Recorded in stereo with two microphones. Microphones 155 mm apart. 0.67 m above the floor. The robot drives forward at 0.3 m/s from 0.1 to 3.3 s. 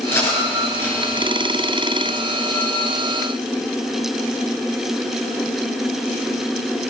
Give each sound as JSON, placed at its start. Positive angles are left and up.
{"t": 0.1, "sound": "cutlery clinking", "side_deg": 15, "distance_m": 6.0}